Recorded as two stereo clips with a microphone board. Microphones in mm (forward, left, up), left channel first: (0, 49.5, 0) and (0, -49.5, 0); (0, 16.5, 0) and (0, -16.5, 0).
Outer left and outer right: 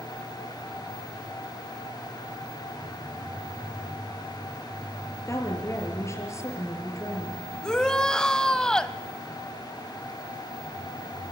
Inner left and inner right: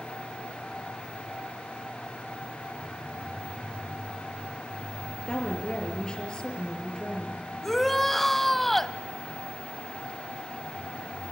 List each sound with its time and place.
5.3 s a woman speaking: 30° left (ahead or behind), 5 m
7.6 s a shout: 5° left (ahead or behind), 1.0 m